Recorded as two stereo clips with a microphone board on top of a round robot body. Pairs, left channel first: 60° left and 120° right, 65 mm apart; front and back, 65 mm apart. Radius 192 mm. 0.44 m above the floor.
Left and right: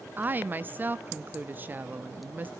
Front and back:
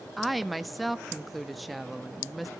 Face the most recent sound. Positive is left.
turn(degrees=-90)